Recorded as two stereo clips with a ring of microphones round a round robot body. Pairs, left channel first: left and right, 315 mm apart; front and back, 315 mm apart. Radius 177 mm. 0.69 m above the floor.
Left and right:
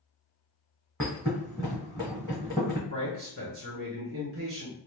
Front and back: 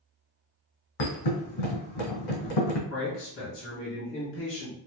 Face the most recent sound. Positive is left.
turn(degrees=-40)